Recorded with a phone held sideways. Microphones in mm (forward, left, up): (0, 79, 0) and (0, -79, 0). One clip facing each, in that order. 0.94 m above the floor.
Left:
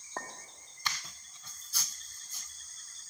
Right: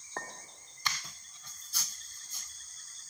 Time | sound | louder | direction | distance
0.2 | a clink | even | 10° left (ahead or behind) | 1.4 m